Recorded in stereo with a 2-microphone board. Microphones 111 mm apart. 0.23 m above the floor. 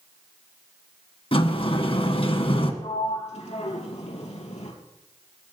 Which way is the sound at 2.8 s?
75° left (ahead or behind).